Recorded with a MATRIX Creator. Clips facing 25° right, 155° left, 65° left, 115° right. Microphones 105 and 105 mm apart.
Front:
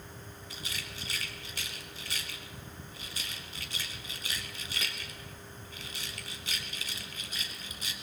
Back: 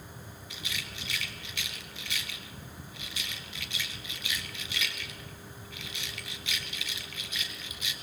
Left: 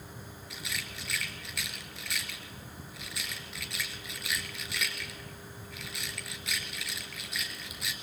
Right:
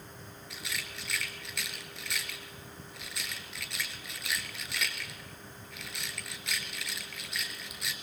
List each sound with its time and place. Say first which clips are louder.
0.5 s a rattle: back 2 dB, even; 20° right, 1.6 m